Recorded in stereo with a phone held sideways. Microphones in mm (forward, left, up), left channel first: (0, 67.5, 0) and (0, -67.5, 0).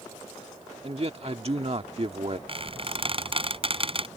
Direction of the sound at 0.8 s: 50° right (ahead or behind).